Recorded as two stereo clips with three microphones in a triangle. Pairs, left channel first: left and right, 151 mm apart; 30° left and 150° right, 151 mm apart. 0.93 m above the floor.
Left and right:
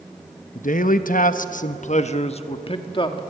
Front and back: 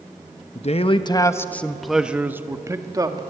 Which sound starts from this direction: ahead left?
A man speaking, at 0.6 s.